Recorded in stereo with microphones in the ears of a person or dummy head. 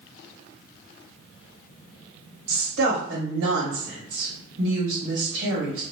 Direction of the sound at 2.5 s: 65° right (ahead or behind).